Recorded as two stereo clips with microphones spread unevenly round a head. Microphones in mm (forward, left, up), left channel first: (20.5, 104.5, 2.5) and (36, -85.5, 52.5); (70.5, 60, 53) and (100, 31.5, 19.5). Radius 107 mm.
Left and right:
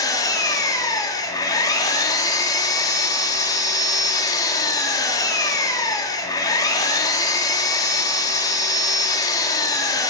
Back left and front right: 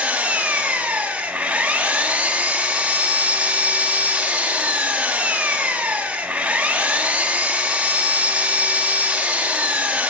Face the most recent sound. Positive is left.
turn(degrees=20)